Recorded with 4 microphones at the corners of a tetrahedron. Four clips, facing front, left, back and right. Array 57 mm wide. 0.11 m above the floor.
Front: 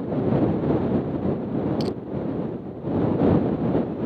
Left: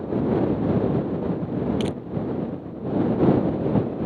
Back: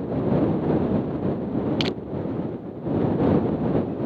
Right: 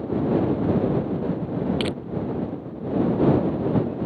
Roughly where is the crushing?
Behind right.